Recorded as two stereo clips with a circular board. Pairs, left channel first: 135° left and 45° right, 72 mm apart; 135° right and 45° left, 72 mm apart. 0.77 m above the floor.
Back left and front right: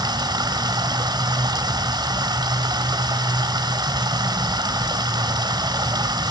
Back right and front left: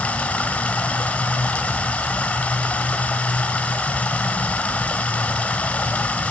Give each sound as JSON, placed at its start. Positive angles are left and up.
{"t": 0.0, "sound": "running water", "azimuth_deg": -65, "distance_m": 2.5}